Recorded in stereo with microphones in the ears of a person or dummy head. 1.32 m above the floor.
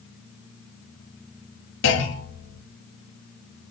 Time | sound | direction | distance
1.8 | a clunk | 65° left (ahead or behind) | 1.5 m